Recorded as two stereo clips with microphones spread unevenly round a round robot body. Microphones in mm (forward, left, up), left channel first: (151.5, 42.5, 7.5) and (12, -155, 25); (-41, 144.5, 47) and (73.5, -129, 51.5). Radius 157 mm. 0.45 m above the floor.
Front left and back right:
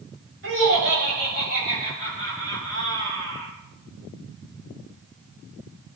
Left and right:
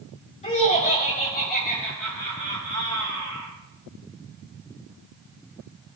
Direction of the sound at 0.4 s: Straight behind.